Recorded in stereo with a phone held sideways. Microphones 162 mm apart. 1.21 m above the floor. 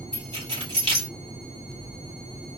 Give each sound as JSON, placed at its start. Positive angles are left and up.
{"t": 0.1, "sound": "keys jangling", "side_deg": -40, "distance_m": 2.0}